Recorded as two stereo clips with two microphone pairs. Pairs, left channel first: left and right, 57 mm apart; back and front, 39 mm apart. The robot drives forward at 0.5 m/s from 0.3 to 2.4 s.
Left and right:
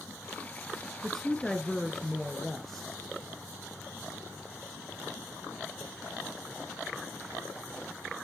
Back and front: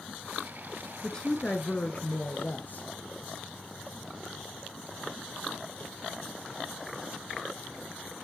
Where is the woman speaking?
160° left, 1.1 m; by 2.9 s 175° left, 1.5 m.